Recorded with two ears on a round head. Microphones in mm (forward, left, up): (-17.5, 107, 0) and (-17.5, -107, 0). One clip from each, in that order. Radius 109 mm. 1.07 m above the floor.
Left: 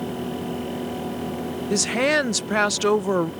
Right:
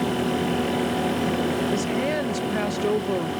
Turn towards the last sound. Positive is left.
turn(degrees=40)  # may be behind; listen again after turning